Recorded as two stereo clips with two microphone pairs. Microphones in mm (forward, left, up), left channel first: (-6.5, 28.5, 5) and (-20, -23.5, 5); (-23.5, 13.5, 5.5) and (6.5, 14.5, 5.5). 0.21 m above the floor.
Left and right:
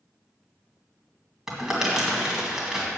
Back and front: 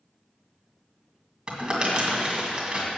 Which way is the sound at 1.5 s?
30° right.